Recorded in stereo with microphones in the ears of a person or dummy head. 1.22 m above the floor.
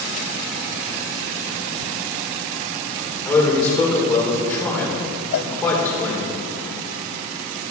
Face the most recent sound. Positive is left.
turn(degrees=70)  # may be behind; listen again after turning